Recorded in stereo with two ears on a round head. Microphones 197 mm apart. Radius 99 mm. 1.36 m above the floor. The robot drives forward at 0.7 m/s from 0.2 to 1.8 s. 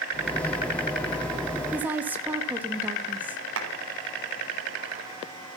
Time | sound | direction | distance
1.7 | a woman speaking | 10° right (ahead or behind) | 2.5 m
3.6 | a clap | 65° right (ahead or behind) | 4.5 m